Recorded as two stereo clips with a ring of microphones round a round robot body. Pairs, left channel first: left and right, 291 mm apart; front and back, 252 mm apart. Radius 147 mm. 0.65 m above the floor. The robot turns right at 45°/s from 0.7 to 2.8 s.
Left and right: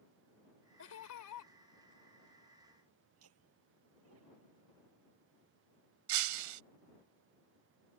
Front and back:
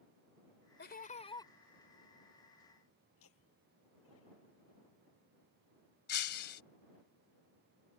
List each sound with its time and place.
0.8 s laughter: 45° left; by 1.5 s 80° left
3.1 s laughter: 50° right
6.1 s breaking glass: 60° right